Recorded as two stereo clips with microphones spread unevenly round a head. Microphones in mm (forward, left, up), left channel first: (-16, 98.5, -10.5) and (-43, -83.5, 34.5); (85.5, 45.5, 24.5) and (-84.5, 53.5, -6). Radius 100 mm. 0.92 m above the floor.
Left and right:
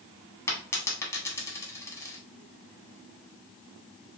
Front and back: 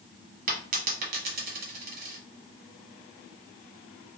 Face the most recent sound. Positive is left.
turn(degrees=165)